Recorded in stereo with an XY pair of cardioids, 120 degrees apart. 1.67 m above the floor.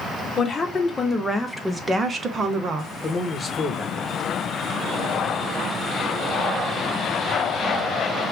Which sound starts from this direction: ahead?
A man speaking, at 3.0 s.